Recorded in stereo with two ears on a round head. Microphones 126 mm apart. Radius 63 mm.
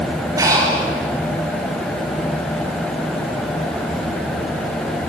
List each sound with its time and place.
0.4 s breathing: 20° right (ahead or behind), 5.5 m